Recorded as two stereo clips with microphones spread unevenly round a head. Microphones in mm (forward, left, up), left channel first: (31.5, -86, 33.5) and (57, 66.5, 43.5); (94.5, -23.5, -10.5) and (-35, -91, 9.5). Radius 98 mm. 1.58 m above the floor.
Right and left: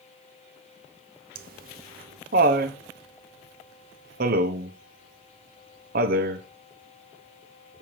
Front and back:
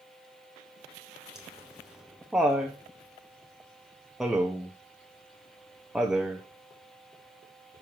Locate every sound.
1.4 s laughter: 120° left, 1.0 m